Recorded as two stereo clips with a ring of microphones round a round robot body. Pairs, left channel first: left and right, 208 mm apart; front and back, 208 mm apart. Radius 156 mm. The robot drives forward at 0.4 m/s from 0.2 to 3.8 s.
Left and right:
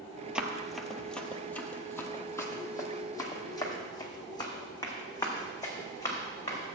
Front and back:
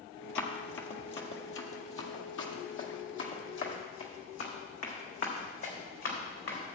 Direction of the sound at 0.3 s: 5° right.